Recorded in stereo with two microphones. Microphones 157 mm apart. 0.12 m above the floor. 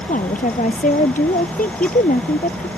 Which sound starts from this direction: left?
A woman speaking, at 0.1 s.